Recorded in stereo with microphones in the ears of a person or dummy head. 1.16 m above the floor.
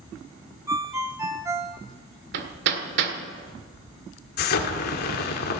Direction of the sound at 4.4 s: 45° left (ahead or behind).